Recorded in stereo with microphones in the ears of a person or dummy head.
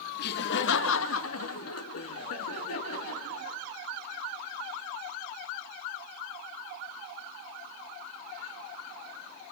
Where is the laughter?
55° left (ahead or behind), 1.3 m; by 3.6 s 75° left (ahead or behind), 2.5 m.